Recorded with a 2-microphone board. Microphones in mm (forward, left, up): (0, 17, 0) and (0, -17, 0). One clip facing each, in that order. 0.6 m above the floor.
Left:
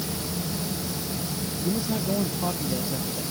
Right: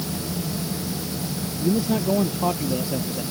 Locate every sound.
1.6 s a man speaking: 25° right (ahead or behind)